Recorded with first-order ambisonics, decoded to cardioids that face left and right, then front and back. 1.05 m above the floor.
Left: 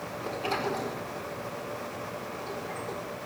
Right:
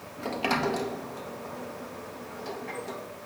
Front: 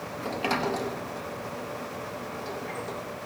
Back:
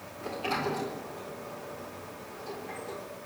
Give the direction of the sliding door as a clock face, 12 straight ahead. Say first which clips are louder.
Right 4 dB, front 3 dB; 2 o'clock.